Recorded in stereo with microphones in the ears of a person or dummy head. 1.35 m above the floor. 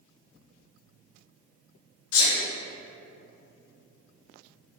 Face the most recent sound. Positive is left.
turn(degrees=70)  # may be behind; listen again after turning